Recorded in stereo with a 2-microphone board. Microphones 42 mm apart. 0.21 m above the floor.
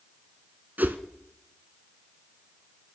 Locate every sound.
0.8 s a whoosh: 45° right (ahead or behind), 0.7 m